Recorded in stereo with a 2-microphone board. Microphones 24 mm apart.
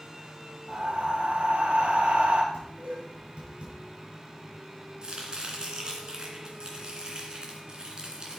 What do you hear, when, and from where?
0.7 s breathing: 55° right (ahead or behind), 1.6 m
2.5 s dishes clattering: 45° right (ahead or behind), 4.5 m
5.0 s chopping: 40° right (ahead or behind), 2.5 m